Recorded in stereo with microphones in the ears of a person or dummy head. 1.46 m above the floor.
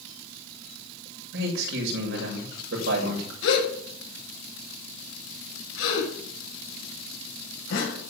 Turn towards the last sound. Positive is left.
turn(degrees=75)  # may be behind; listen again after turning